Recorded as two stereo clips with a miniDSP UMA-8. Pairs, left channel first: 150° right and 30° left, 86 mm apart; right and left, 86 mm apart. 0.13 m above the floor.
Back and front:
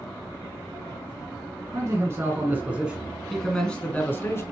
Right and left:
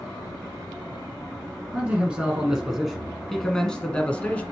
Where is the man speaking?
25° left, 1.4 m; by 4.4 s 145° right, 1.2 m.